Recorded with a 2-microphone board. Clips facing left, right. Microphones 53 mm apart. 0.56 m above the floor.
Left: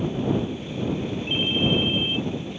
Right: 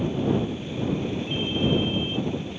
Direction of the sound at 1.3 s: 60° left (ahead or behind).